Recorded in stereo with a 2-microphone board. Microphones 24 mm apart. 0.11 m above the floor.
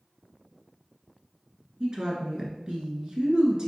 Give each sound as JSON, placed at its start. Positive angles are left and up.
{"t": 1.8, "sound": "a woman speaking", "side_deg": -30, "distance_m": 1.3}